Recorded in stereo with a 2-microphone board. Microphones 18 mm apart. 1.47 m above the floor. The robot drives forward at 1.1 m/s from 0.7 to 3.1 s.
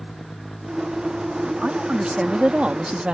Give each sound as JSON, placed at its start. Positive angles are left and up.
{"t": 1.6, "sound": "a woman speaking", "side_deg": -50}